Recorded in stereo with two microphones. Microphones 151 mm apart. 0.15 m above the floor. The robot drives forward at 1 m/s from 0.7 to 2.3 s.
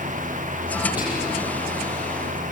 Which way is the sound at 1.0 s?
10° right (ahead or behind).